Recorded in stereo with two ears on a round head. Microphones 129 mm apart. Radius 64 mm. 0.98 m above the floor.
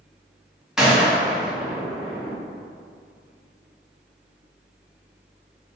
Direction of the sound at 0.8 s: 5° right (ahead or behind).